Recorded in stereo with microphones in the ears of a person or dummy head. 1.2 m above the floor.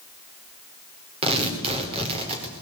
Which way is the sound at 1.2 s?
35° right (ahead or behind).